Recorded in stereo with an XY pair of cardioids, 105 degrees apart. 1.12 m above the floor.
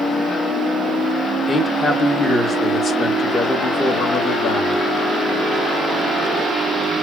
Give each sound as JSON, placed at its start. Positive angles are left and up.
{"t": 1.5, "sound": "a man speaking", "azimuth_deg": 35, "distance_m": 1.9}